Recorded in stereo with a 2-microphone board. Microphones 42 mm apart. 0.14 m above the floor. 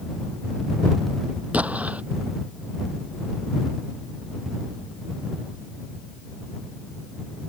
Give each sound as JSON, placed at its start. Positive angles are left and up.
{"t": 1.5, "sound": "an explosion", "side_deg": -35}